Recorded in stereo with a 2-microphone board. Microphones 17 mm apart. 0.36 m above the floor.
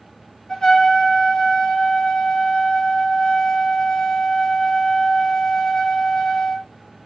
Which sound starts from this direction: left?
A trumpet, at 0.5 s.